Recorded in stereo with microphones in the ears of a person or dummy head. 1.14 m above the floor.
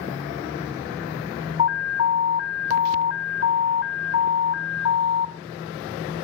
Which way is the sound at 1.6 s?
65° left (ahead or behind).